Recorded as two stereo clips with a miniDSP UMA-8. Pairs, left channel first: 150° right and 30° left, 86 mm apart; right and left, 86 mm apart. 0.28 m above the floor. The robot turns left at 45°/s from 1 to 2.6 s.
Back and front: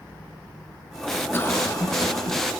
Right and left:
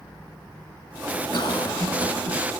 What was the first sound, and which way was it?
A cough, 85° right.